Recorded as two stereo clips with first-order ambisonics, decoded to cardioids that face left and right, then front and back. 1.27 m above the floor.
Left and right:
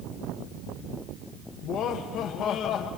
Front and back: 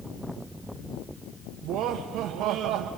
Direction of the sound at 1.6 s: 145° left.